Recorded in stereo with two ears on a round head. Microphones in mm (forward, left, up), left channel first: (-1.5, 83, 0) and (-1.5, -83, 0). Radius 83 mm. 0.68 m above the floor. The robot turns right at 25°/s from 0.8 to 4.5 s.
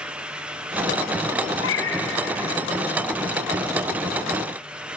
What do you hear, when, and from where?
1.6 s a cat meowing: 85° left, 2.5 m; by 2.1 s 70° left (ahead or behind), 2.5 m